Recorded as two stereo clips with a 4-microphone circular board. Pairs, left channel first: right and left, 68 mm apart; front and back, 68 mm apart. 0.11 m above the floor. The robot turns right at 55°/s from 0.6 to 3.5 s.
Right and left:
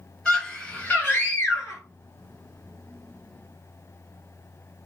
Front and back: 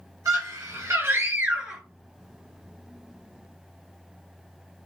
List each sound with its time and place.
0.2 s a scream: 170° right, 2.5 m; by 1.8 s 105° right, 2.5 m